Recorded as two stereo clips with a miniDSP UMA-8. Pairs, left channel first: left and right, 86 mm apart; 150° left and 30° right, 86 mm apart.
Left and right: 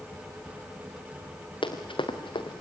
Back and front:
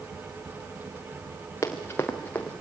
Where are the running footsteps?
95° left, 3 m; by 2.6 s 75° left, 3 m.